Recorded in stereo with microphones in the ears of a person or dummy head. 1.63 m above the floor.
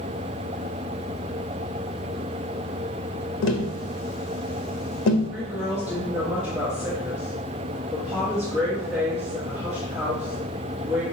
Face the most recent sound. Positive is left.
turn(degrees=-10)  # may be behind; listen again after turning